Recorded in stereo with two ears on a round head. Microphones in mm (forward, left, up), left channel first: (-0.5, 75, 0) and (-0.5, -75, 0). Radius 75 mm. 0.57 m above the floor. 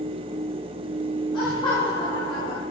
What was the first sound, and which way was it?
Laughter, 30° left (ahead or behind).